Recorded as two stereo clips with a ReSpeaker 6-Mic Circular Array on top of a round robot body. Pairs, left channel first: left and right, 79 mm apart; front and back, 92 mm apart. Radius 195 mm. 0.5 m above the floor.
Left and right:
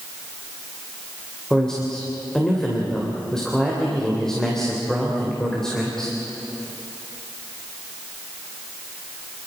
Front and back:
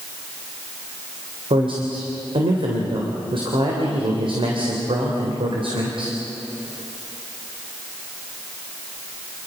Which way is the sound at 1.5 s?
175° left.